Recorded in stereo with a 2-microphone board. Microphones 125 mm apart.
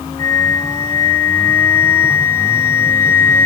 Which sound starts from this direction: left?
A flute, at 0.2 s.